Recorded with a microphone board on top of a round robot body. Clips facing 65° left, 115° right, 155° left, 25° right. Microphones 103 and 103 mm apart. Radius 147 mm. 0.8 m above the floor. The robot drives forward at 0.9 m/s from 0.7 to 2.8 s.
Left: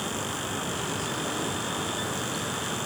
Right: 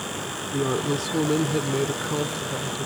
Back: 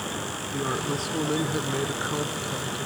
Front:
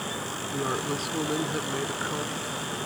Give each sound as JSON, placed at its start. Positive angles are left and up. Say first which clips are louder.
{"t": 0.5, "sound": "a woman speaking", "louder": "right 13 dB, back 1 dB", "azimuth_deg": -105}